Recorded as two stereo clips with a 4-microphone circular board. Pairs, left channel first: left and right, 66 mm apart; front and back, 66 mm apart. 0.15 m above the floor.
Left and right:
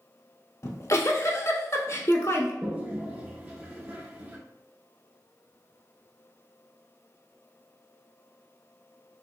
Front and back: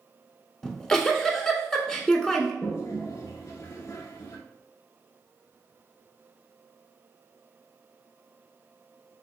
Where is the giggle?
80° left, 0.6 m.